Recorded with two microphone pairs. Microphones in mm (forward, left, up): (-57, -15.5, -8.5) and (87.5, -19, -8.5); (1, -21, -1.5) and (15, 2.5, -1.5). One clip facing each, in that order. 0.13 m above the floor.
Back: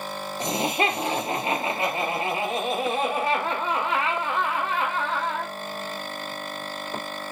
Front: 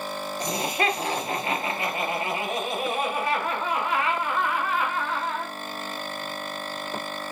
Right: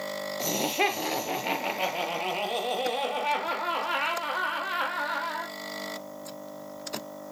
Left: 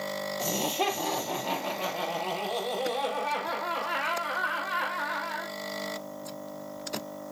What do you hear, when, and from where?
0.4 s laughter: 120° right, 2.5 m